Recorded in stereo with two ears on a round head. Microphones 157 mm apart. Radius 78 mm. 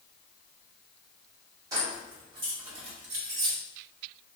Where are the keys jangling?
25° right (ahead or behind), 1.7 m; by 3.6 s 55° right (ahead or behind), 0.9 m.